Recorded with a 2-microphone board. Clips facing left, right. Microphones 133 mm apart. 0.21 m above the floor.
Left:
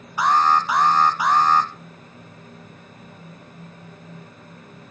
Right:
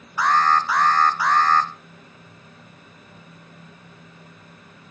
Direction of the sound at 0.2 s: 20° left (ahead or behind).